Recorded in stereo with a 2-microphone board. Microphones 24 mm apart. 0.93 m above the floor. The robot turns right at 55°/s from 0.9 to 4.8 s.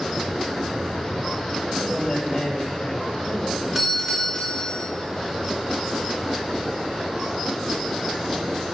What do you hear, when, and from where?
1.6 s a man speaking: 30° right, 3.5 m; by 3.6 s 80° left, 3.5 m
3.8 s a doorbell: 5° right, 1.9 m; by 4.9 s 50° left, 1.9 m